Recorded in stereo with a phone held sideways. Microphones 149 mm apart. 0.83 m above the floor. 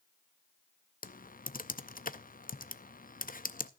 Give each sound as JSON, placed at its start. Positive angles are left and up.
{"t": 1.0, "sound": "typing on a keyboard", "side_deg": 70, "distance_m": 0.5}